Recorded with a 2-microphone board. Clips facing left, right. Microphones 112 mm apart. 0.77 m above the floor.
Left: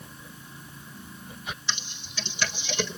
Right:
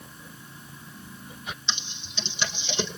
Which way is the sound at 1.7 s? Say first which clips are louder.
Even; 25° right (ahead or behind).